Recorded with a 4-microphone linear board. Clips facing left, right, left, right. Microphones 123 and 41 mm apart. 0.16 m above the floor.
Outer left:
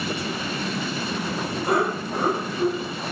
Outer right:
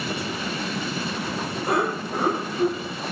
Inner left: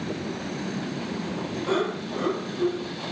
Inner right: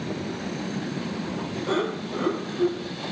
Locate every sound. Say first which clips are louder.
1.7 s laughter: outer left 1 dB, even; 5° right (ahead or behind), 1.6 m; by 2.8 s 20° right (ahead or behind), 1.7 m